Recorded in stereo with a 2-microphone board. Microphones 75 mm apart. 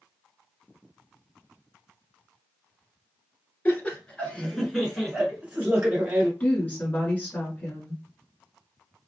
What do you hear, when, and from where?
3.6 s laughter: 25° left (ahead or behind), 1.3 m; by 6.3 s 30° right (ahead or behind), 1.3 m
6.4 s a woman speaking: 20° left (ahead or behind), 1.3 m